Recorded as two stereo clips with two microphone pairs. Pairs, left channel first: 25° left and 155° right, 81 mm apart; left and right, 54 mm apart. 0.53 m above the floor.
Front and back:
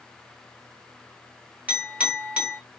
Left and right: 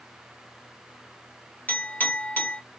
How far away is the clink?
About 1.0 m.